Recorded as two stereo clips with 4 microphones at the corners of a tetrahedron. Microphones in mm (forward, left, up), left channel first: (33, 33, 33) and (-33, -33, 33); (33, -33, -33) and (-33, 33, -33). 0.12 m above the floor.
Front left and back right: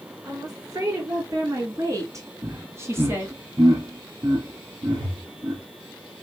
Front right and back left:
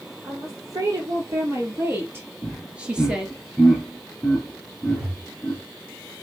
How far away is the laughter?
About 1.4 m.